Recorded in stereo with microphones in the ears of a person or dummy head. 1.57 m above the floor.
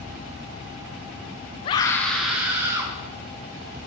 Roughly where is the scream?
Left.